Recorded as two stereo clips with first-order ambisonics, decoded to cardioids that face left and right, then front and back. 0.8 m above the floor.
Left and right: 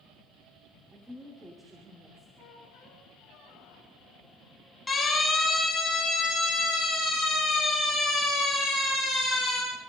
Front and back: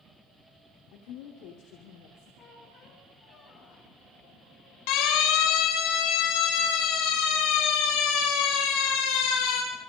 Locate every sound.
0.9 s a woman speaking: straight ahead, 2.5 m
2.4 s a squeak: 55° left, 3.5 m
4.9 s a siren: 10° left, 7 m; by 9.6 s 10° right, 13.5 m